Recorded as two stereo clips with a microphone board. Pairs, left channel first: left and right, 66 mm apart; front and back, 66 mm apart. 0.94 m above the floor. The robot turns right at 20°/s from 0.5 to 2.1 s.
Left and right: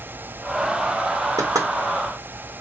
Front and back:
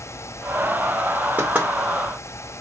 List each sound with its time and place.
1.4 s knocking: 115° right, 1.9 m; by 1.7 s 110° right, 1.9 m